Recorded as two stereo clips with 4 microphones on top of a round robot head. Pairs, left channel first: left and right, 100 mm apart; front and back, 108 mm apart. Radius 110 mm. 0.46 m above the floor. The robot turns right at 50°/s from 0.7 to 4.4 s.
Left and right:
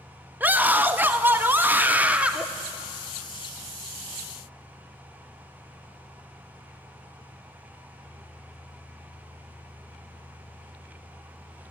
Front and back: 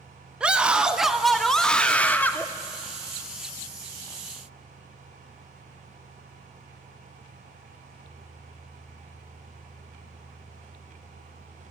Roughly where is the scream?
Behind right.